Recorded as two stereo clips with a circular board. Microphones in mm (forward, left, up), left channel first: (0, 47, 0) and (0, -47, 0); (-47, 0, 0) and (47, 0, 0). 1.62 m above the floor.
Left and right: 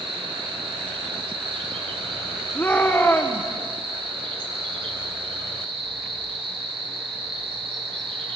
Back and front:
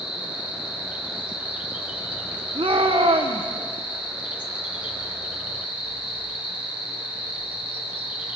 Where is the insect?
75° right, 4 m.